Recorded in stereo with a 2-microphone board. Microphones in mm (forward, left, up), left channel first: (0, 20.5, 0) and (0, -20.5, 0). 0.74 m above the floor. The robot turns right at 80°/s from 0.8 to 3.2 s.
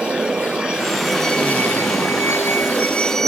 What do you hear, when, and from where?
0.0 s a vehicle: 20° right; by 3.3 s 170° left